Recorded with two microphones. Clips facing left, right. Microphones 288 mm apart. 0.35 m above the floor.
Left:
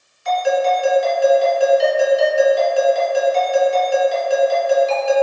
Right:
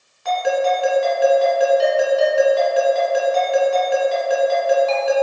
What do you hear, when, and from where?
0.2 s a ringtone: 65° right (ahead or behind), 1.9 m